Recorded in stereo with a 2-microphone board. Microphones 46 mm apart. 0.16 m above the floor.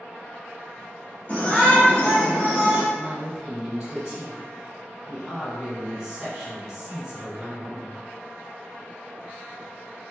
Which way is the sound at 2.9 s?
15° right (ahead or behind).